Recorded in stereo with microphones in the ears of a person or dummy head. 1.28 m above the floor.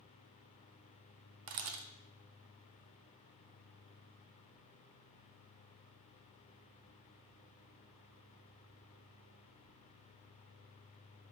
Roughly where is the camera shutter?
Right.